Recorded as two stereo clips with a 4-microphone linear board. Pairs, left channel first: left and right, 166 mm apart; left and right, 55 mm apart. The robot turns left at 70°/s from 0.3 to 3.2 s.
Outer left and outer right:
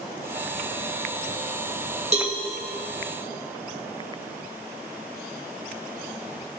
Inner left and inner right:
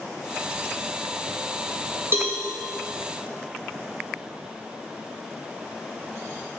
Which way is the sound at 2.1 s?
45° right (ahead or behind).